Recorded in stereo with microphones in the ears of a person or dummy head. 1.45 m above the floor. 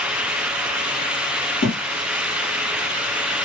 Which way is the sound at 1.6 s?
50° left (ahead or behind).